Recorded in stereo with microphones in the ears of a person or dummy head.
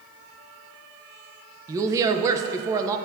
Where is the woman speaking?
15° right (ahead or behind), 0.8 m.